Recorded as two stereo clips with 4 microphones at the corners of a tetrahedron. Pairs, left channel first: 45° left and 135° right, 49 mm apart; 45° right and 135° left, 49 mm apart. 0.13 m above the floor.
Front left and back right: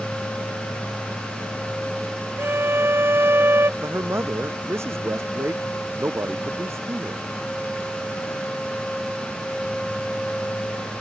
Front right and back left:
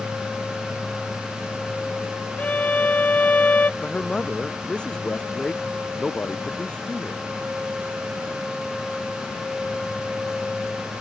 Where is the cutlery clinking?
I don't hear cutlery clinking.